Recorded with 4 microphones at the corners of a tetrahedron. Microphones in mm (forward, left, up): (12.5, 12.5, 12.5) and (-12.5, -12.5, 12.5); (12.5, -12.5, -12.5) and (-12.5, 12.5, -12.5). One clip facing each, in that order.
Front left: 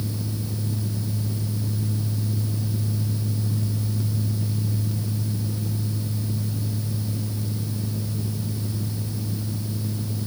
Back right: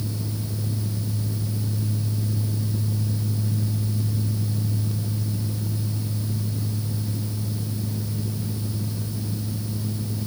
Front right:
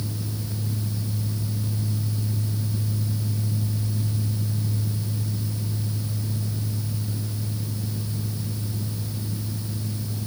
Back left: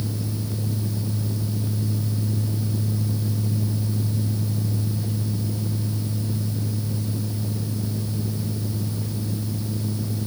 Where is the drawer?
I don't hear a drawer.